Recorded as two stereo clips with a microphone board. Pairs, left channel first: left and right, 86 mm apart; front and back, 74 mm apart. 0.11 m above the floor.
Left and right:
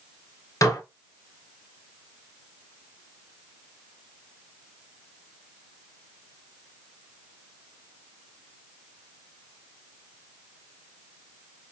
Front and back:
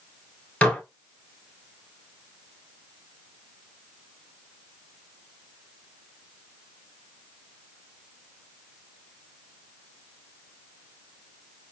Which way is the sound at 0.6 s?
70° left.